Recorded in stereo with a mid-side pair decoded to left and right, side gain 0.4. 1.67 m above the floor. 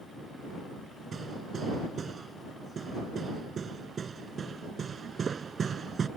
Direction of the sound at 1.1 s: 45° right.